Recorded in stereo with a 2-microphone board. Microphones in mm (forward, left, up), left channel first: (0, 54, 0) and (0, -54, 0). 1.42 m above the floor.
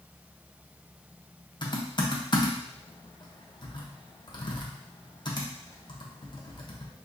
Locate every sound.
1.6 s typing on a keyboard: 45° left (ahead or behind), 0.7 m